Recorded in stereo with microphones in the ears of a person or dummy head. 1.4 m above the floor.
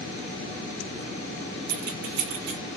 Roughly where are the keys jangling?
Right.